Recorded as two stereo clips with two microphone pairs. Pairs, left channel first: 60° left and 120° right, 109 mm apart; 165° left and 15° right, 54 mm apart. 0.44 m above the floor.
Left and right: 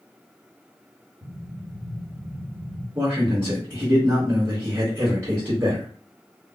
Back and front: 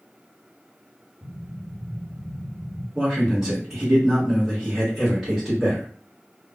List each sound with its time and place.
1.2 s an explosion: 65° right, 1.3 m
3.0 s a man speaking: 80° right, 1.3 m